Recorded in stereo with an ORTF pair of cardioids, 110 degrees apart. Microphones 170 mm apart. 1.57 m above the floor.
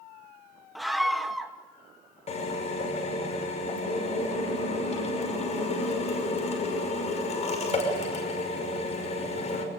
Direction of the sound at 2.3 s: 40° left.